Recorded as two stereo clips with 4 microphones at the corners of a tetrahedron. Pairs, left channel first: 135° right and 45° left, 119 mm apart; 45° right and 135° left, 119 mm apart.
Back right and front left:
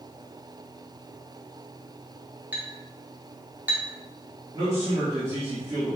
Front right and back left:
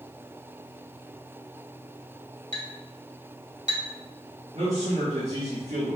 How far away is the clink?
About 1.2 m.